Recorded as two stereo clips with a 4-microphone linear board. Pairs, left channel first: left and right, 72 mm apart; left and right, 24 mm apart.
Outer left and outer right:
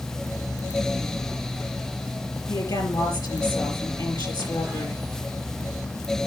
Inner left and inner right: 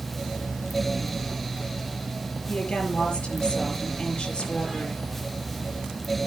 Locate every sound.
2.5 s a woman speaking: 70° left (ahead or behind), 5 m